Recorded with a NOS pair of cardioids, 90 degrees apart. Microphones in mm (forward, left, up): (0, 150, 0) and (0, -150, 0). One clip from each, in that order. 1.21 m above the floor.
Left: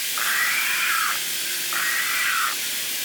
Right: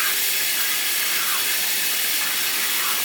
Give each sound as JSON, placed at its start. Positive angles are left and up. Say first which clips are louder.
{"t": 0.0, "sound": "running water", "louder": "left 1 dB", "azimuth_deg": -70, "distance_m": 1.9}